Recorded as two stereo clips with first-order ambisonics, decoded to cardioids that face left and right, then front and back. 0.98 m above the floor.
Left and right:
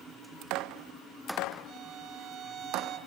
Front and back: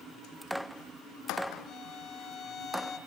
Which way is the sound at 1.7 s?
45° right.